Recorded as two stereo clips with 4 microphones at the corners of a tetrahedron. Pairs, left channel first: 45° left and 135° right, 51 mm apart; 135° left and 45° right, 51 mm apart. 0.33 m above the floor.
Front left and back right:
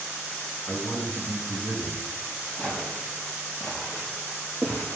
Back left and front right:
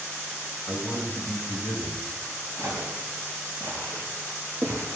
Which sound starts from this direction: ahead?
A man speaking, at 0.7 s.